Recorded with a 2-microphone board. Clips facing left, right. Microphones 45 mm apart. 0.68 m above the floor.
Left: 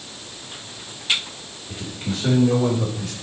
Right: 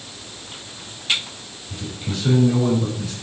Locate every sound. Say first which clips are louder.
1.7 s a man speaking: left 1 dB; 45° left (ahead or behind), 2.5 m; by 3.1 s 75° left (ahead or behind), 3 m